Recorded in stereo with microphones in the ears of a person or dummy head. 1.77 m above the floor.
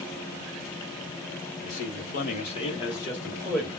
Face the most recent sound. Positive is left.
turn(degrees=5)  # may be behind; listen again after turning